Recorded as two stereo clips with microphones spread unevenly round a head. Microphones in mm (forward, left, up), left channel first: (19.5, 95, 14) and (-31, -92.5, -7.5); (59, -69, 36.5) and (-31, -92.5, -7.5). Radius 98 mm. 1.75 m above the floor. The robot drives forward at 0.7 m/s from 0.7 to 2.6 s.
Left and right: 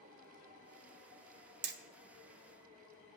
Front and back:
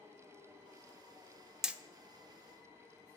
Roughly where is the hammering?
Ahead right.